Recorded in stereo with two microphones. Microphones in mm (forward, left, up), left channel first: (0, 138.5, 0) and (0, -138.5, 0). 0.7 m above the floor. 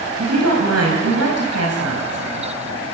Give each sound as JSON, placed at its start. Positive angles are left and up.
{"t": 0.2, "sound": "a woman speaking", "side_deg": -60, "distance_m": 4.5}